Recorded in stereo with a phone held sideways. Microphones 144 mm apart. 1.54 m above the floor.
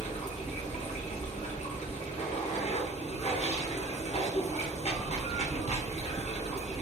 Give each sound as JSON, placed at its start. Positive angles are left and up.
{"t": 0.0, "sound": "running water", "side_deg": 50, "distance_m": 0.7}